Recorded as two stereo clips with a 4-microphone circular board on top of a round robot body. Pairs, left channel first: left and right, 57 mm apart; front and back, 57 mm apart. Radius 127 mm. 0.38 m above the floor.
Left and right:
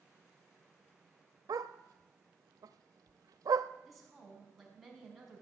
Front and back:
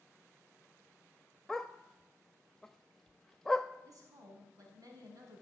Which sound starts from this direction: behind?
A woman speaking, at 3.9 s.